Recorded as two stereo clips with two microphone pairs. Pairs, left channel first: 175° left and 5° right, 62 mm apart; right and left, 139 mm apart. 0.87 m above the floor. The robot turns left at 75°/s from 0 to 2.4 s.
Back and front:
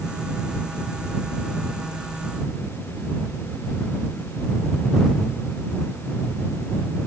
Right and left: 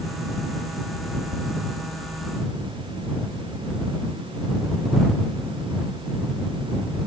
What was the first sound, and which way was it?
Only background noise.